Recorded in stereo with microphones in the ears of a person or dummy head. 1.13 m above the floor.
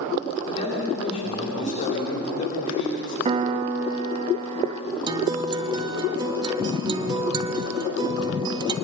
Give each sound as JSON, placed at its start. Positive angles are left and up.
{"t": 0.5, "sound": "a man speaking", "side_deg": 40, "distance_m": 3.0}
{"t": 3.2, "sound": "a piano", "side_deg": -40, "distance_m": 1.0}
{"t": 5.1, "sound": "a guitar", "side_deg": -25, "distance_m": 1.4}